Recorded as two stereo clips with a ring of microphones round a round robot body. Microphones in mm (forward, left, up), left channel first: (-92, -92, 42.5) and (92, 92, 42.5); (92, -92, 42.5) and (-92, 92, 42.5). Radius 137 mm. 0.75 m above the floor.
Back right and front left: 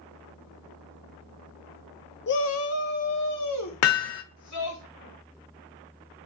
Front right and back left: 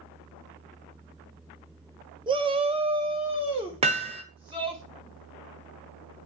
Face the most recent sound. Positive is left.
turn(degrees=-160)